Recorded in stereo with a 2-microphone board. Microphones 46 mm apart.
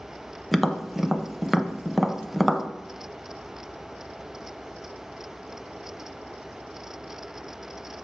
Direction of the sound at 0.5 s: Centre (ahead or behind).